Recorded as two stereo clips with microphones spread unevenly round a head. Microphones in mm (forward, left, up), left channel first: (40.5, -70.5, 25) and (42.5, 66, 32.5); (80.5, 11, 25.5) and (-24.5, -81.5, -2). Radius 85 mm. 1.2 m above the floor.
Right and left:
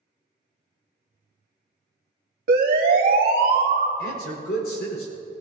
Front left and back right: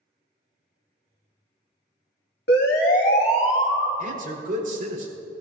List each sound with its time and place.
2.5 s a siren: 75° left, 2 m; by 3.9 s 120° left, 2 m
4.0 s a man speaking: 110° right, 5 m